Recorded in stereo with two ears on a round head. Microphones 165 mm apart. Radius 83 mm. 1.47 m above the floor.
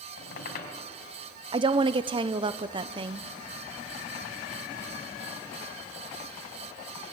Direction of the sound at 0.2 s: 60° left (ahead or behind).